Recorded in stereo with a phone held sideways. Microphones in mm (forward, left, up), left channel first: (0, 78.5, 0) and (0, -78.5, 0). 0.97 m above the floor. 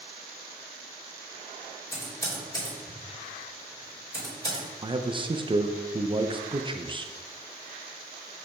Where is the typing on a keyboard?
15° left (ahead or behind), 3 m.